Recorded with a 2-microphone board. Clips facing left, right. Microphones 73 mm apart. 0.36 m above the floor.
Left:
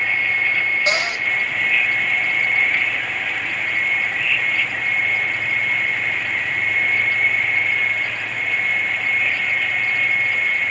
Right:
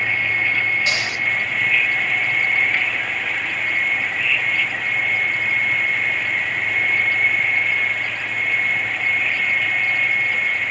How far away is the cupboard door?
About 1.2 m.